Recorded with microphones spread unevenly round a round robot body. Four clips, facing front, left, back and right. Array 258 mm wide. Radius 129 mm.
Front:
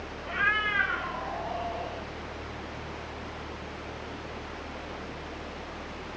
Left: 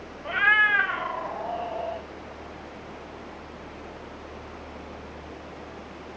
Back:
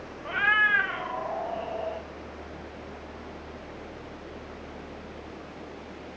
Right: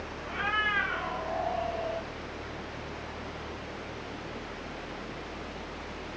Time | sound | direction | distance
0.2 | a cat meowing | 100° left | 0.6 m